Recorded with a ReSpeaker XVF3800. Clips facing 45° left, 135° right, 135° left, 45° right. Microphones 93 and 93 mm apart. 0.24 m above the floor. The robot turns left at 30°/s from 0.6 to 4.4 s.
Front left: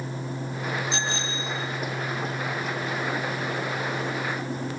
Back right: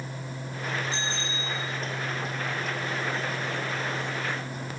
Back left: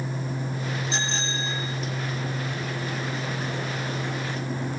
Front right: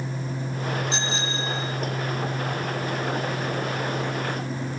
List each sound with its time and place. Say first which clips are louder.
0.9 s a bicycle bell: front left 3 dB, front right 1 dB; 45° left, 6 m; by 1.5 s 25° left, 6 m